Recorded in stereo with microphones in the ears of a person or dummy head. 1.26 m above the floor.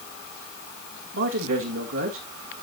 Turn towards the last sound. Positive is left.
turn(degrees=-65)  # may be behind; listen again after turning